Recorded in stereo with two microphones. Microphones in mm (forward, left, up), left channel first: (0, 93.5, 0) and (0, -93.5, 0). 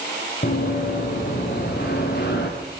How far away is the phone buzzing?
I don't hear a phone buzzing.